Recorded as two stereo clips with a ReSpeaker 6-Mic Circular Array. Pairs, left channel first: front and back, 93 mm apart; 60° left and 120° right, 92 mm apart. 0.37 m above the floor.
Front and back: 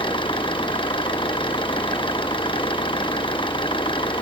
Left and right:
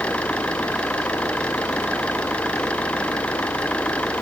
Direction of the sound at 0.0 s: 20° right.